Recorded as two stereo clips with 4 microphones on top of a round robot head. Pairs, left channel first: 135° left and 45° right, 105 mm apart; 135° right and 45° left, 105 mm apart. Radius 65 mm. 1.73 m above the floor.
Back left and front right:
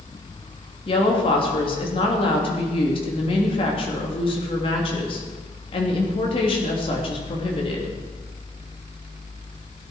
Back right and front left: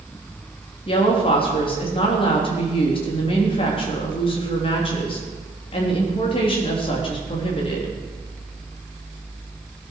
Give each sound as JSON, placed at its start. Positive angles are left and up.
{"t": 0.9, "sound": "a woman speaking", "azimuth_deg": 180, "distance_m": 3.0}